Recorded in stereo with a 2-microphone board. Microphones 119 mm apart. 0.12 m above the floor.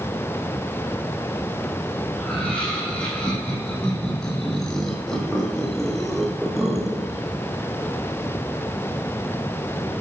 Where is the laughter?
10° left (ahead or behind), 8.5 m; by 7.2 s 5° right (ahead or behind), 3 m.